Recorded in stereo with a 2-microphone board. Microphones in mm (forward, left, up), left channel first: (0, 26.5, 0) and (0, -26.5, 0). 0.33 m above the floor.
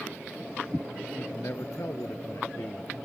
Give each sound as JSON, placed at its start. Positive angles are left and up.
{"t": 1.1, "sound": "a man speaking", "side_deg": 60}